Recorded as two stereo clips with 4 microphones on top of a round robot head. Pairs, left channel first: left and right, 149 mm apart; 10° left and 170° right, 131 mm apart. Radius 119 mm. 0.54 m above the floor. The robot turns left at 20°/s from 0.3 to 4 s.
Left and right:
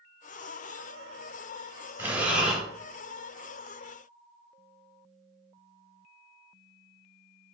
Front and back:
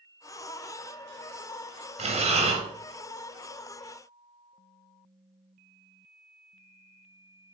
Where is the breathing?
165° right, 0.9 m; by 2.6 s 175° right, 0.9 m.